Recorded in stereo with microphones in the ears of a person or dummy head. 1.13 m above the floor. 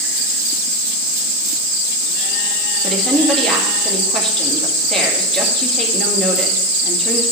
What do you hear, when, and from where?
2.8 s a woman speaking: 5° left (ahead or behind), 1.9 m